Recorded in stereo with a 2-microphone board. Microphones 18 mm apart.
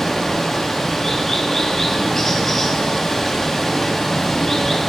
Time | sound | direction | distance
0.0 | running water | 20° left (ahead or behind) | 0.7 m